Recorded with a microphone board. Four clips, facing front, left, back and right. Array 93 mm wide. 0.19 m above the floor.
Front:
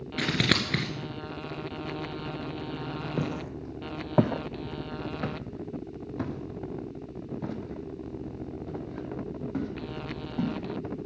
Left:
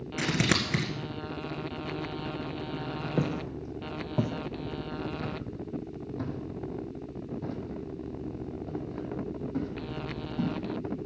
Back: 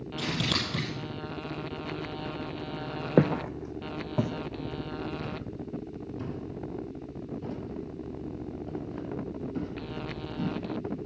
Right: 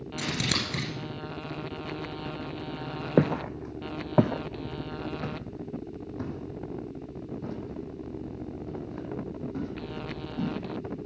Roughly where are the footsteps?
Behind right.